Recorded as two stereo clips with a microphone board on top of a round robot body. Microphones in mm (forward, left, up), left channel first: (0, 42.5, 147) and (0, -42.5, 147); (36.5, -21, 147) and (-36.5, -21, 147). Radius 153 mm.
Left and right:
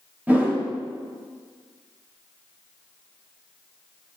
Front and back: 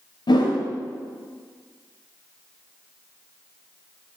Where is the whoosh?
20° right, 1.6 m.